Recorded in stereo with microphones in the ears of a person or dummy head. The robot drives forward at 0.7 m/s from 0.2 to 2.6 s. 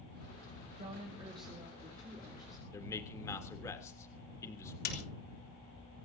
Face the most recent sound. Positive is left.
turn(degrees=55)  # may be behind; listen again after turning